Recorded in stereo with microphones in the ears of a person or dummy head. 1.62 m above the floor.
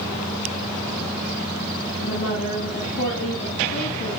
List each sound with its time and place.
2.0 s a woman speaking: 45° left (ahead or behind), 9 m